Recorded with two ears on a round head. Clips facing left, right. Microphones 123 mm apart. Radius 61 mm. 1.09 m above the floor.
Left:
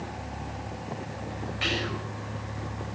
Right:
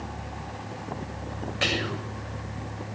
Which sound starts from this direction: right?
Whispering, at 1.6 s.